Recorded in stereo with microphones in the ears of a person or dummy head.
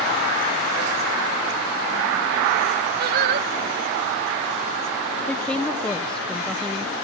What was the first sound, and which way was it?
Singing, 55° right (ahead or behind).